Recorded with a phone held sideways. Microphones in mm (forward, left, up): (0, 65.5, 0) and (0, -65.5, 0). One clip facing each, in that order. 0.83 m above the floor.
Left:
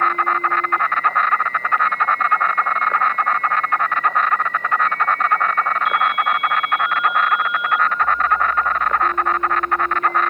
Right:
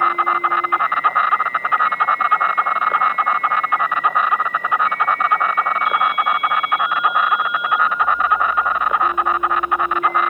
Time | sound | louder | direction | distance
0.0 | an insect | right 1 dB | 10° right (ahead or behind) | ?